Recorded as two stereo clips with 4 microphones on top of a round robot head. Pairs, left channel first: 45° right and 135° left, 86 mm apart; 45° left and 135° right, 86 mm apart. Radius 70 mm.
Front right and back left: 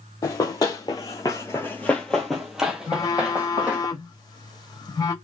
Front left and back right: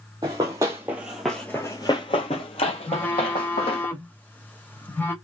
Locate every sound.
0.2 s running footsteps: 90° right, 1.0 m; by 3.9 s 60° left, 1.4 m
2.9 s a phone buzzing: 20° right, 1.3 m